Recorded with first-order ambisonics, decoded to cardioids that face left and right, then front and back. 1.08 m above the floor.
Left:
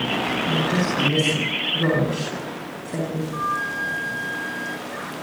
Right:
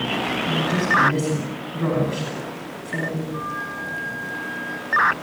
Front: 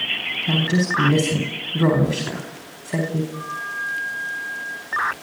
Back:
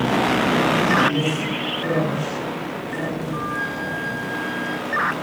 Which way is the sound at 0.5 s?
Straight ahead.